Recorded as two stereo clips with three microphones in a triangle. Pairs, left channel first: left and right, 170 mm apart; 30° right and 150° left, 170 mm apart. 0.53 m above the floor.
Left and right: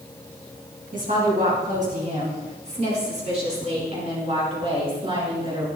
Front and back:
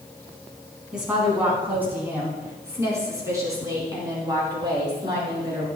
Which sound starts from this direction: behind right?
A woman speaking, at 0.9 s.